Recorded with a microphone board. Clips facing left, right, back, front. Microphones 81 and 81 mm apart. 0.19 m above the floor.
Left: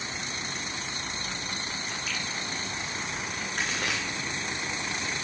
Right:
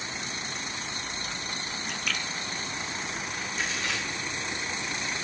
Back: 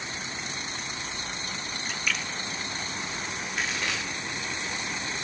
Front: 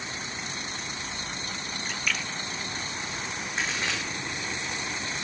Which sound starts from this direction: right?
A splash, at 1.9 s.